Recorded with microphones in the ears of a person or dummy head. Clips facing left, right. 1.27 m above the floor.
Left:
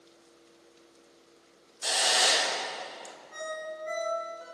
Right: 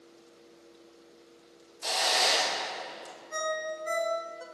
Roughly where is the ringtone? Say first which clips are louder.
Right 4 dB; right.